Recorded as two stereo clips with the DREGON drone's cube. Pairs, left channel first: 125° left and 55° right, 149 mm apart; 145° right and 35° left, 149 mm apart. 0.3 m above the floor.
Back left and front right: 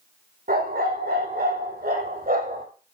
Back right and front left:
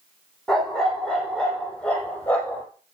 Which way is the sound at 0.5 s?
55° right.